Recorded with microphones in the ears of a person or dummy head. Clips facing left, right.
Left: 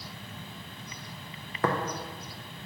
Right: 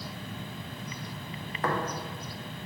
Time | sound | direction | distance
1.6 | tapping | 60° left (ahead or behind) | 0.7 m